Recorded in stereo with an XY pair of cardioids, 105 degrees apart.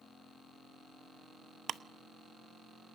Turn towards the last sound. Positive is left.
turn(degrees=-50)